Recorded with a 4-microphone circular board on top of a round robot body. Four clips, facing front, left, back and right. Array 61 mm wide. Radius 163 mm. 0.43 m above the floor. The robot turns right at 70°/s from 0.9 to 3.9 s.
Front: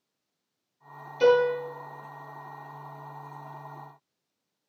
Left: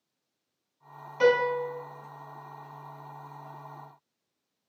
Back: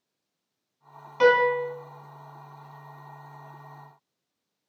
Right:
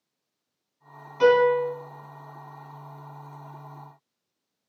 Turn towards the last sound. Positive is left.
turn(degrees=5)